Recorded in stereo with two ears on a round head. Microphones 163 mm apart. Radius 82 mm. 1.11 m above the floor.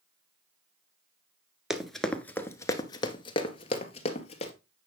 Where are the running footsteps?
Centre (ahead or behind), 1.2 m; by 4.5 s 35° left (ahead or behind), 1.8 m.